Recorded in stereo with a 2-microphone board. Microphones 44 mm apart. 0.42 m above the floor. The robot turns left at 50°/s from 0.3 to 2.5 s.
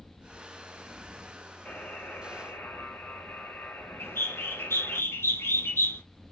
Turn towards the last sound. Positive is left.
turn(degrees=85)